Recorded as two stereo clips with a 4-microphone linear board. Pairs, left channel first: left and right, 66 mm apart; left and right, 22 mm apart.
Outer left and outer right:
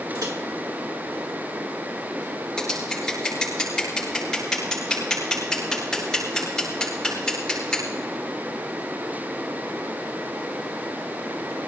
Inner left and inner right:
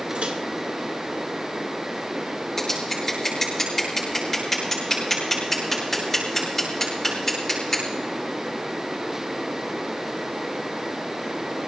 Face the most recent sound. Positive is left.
turn(degrees=10)  # may be behind; listen again after turning